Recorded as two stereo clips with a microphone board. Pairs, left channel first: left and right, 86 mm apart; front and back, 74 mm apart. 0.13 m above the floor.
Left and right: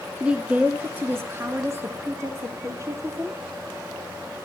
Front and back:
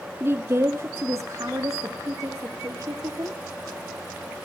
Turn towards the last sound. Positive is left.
turn(degrees=-140)